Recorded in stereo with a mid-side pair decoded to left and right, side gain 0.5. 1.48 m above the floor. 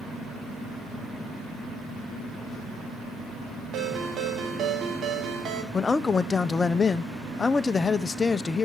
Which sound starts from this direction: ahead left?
A man speaking, at 5.7 s.